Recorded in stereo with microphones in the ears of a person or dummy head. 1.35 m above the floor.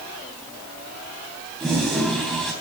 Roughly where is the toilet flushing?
Centre.